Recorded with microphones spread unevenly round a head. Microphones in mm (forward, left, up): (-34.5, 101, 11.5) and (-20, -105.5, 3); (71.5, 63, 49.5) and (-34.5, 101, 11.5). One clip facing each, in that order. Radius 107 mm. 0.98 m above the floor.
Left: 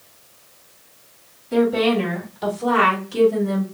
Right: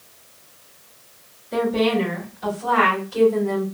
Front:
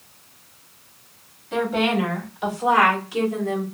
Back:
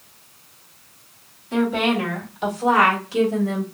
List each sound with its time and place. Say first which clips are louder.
1.5 s a woman speaking: left 2 dB, back 1 dB; 80° left, 2 m; by 3.6 s 115° left, 2 m